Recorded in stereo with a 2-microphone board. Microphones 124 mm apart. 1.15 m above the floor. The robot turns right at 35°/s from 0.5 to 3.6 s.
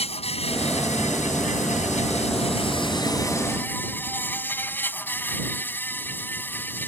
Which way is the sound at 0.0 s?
55° left.